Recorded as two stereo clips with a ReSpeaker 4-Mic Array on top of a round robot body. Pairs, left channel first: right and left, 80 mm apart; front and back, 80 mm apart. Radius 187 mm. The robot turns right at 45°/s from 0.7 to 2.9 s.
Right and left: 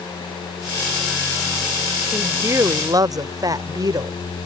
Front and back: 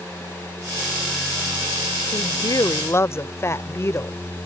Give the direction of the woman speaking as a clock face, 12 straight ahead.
11 o'clock.